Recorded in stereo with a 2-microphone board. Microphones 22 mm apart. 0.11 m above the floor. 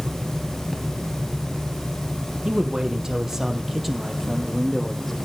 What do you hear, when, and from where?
2.5 s a man speaking: 35° right (ahead or behind), 4 m; by 5.2 s 10° left (ahead or behind), 5 m